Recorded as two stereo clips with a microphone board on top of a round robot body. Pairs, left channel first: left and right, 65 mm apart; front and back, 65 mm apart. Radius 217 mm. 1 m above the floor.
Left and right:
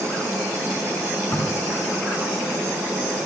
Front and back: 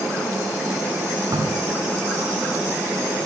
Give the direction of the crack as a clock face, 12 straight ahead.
7 o'clock.